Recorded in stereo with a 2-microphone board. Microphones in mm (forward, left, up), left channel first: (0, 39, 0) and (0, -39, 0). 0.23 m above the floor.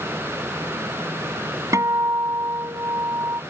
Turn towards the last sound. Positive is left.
turn(degrees=-45)  # may be behind; listen again after turning